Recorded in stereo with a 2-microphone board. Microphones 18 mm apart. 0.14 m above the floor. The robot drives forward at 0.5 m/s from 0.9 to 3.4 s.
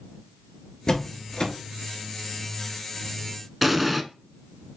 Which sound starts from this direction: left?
A door slam, at 0.9 s.